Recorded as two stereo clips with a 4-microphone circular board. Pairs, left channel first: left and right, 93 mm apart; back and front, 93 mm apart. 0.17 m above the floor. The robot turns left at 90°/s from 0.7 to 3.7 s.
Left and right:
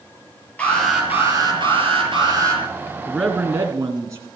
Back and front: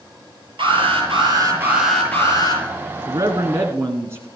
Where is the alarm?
15° left, 6 m; by 2.6 s 155° right, 6 m.